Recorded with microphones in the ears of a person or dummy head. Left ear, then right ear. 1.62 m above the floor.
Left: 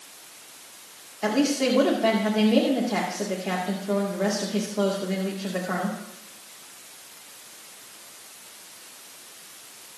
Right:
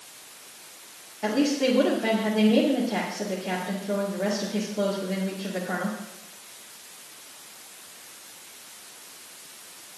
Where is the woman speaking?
30° left (ahead or behind), 2 m.